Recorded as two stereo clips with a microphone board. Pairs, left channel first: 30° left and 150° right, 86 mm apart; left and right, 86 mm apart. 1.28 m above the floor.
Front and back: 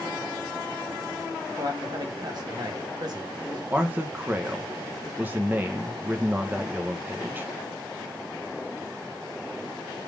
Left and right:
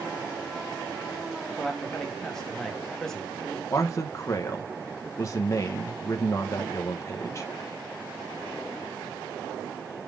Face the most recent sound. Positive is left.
turn(degrees=140)